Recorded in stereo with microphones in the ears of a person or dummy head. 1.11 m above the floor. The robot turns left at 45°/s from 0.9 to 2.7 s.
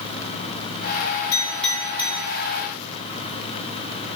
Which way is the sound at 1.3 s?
15° left (ahead or behind).